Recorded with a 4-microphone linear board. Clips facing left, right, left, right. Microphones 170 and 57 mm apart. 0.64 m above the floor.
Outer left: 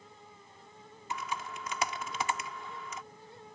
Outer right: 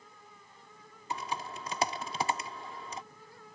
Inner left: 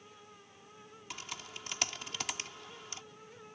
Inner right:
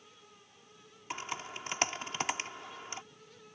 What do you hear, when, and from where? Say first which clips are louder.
1.1 s typing on a keyboard: outer right 1 dB, inner right 7 dB; 35° right (ahead or behind)